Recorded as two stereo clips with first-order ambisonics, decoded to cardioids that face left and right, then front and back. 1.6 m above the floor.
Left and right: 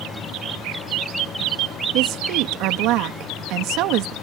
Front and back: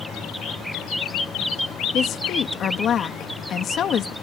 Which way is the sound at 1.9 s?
60° right.